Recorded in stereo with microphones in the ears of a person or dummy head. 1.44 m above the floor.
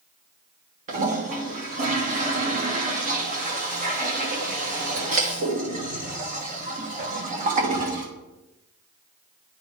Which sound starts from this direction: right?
A toilet flushing, at 0.9 s.